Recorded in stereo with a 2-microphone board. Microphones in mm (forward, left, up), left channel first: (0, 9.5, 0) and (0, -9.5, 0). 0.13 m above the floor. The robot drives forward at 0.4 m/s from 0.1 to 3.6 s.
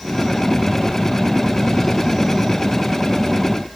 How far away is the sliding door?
No sliding door in this recording.